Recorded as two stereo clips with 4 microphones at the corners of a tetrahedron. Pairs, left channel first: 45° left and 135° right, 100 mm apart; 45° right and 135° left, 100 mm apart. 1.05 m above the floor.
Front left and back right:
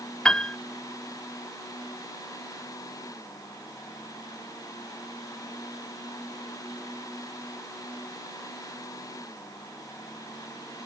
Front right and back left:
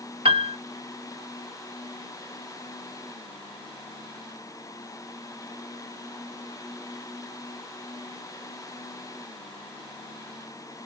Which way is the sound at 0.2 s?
125° left.